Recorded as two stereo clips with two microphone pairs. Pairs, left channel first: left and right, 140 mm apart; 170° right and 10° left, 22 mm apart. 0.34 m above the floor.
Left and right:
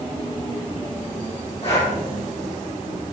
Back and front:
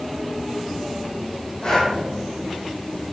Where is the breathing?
135° left, 4 m.